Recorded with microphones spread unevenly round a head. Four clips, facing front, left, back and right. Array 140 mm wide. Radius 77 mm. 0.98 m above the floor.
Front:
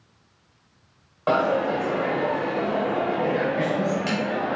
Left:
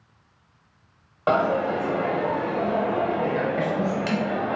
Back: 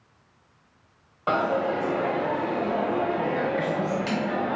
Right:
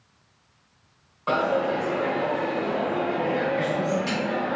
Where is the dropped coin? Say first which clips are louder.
Left 2 dB, front 3 dB; 95° left, 0.8 m.